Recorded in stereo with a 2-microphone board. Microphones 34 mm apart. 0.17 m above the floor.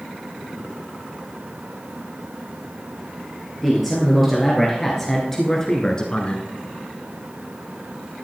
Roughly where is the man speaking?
Centre.